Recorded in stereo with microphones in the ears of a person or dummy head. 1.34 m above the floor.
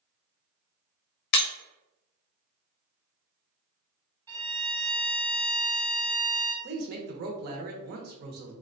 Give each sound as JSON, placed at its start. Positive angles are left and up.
{"t": 1.3, "sound": "breaking glass", "side_deg": 55, "distance_m": 0.6}
{"t": 4.3, "sound": "a violin", "side_deg": -20, "distance_m": 1.3}
{"t": 6.6, "sound": "a woman speaking", "side_deg": -55, "distance_m": 0.9}